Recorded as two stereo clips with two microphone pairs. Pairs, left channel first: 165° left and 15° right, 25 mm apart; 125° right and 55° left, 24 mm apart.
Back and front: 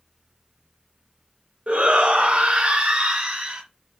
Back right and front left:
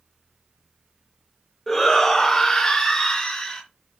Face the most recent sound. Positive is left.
turn(degrees=-65)